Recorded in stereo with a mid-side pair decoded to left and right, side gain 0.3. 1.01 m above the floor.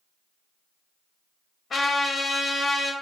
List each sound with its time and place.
1.7 s a trumpet: 65° left, 0.9 m